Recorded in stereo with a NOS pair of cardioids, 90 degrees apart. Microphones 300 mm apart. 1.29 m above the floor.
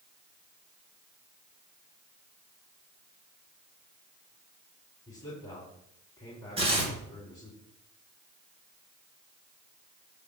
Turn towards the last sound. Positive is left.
turn(degrees=-20)